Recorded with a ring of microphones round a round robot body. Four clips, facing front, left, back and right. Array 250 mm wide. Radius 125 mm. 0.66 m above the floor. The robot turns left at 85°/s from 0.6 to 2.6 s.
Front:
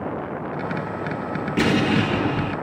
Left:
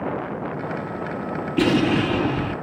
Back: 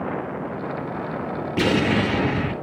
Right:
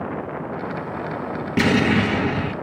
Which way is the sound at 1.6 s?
70° right.